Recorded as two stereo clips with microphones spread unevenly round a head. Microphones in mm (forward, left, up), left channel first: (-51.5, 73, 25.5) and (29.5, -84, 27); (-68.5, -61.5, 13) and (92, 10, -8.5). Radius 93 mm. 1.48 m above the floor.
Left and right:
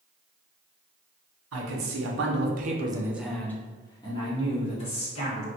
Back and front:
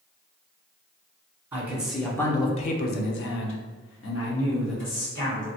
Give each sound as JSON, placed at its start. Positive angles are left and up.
{"t": 1.5, "sound": "a man speaking", "azimuth_deg": -55, "distance_m": 0.9}